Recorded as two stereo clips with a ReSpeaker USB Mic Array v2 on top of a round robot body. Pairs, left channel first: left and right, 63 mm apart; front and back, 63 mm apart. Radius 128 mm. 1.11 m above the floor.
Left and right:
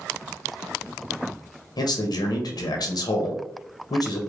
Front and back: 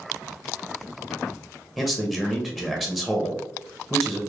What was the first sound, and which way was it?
A man speaking, 95° left.